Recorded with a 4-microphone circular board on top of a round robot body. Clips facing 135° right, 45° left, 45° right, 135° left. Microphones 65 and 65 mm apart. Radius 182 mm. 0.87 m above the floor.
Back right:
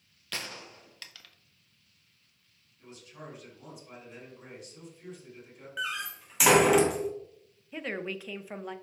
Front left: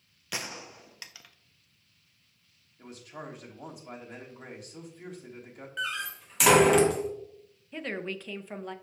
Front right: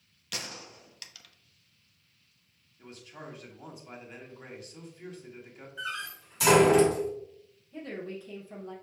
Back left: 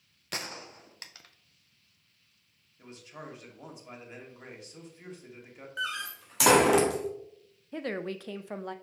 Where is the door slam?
140° left, 1.5 m.